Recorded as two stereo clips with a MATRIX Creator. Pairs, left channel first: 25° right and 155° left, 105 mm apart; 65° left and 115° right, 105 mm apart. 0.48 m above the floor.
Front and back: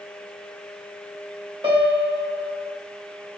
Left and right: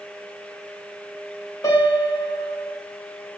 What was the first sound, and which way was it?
A piano, 120° left.